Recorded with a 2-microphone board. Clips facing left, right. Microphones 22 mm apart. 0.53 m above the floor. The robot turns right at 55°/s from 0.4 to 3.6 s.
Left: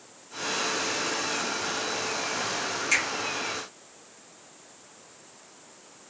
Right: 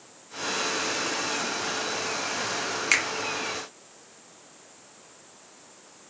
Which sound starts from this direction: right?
A finger snap, at 2.9 s.